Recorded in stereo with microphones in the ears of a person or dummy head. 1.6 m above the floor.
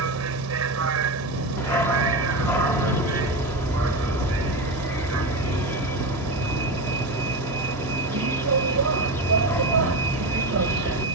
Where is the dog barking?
20° left (ahead or behind).